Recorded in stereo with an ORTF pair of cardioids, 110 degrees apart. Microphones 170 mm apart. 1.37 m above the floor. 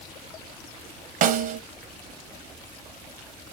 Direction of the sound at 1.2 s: 55° right.